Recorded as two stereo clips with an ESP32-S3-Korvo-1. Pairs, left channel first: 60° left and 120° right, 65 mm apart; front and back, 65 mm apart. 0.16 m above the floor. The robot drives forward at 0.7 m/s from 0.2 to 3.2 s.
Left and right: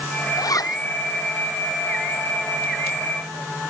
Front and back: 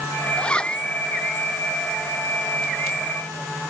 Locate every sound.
0.4 s a zipper: 75° left